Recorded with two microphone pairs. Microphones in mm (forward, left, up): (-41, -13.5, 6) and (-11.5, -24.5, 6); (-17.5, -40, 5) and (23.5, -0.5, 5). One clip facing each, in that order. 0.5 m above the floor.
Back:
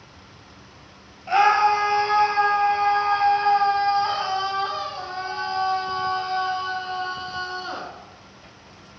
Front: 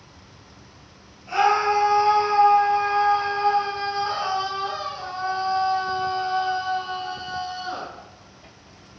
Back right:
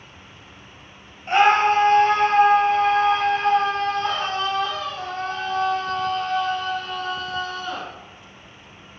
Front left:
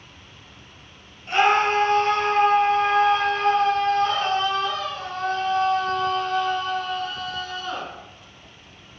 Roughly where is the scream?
Behind.